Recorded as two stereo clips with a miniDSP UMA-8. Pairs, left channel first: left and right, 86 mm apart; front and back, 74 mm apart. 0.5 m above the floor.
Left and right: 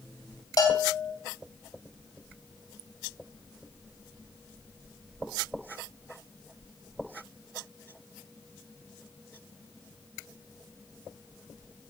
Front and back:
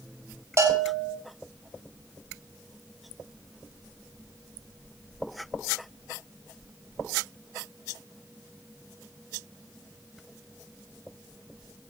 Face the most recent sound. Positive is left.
turn(degrees=135)